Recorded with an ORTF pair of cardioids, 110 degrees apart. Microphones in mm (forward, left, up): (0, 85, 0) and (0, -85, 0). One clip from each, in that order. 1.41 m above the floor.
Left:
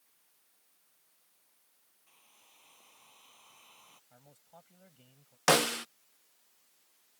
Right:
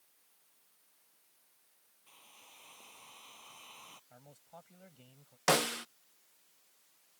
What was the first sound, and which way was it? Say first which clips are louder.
A hair dryer: right 6 dB; 30° right.